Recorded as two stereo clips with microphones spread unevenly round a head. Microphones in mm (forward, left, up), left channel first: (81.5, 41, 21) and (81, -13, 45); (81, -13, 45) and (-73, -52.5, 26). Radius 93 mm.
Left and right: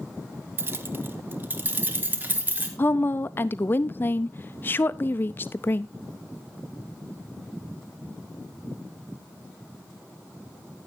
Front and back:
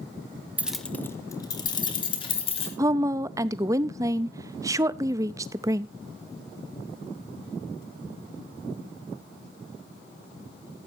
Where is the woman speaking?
125° left, 0.5 m.